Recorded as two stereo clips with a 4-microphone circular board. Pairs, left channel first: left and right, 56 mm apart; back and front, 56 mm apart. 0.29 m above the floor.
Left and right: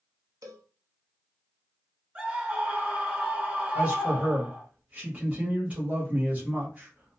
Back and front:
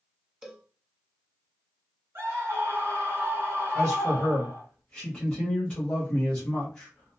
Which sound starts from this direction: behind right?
A man speaking, at 3.8 s.